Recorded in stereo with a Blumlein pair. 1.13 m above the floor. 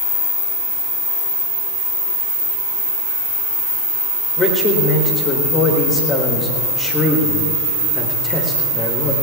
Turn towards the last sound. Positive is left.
turn(degrees=20)